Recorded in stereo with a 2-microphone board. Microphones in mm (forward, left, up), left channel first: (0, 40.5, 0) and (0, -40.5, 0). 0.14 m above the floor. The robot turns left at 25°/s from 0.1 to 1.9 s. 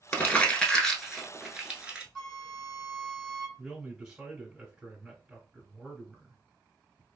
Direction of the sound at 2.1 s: 10° left (ahead or behind).